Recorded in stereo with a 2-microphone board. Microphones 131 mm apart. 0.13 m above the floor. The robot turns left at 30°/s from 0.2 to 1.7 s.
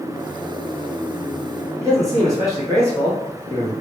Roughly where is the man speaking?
Right.